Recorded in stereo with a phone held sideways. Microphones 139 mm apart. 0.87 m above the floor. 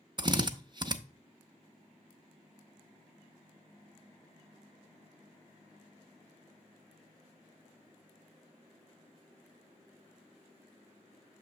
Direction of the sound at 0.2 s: 35° right (ahead or behind).